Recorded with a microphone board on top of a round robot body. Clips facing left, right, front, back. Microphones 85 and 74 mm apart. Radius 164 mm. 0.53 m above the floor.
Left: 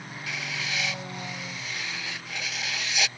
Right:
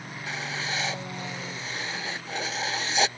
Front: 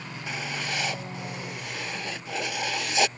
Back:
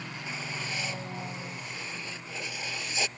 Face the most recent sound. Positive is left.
turn(degrees=-30)